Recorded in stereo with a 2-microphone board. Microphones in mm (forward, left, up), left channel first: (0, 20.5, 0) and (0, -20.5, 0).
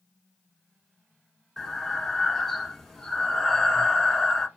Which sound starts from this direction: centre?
Breathing, at 1.6 s.